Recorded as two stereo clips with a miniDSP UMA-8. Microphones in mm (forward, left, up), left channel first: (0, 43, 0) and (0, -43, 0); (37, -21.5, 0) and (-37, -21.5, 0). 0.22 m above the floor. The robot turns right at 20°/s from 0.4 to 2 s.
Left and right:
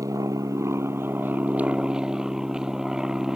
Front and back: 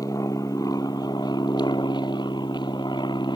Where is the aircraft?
40° right; by 3.4 s 5° right.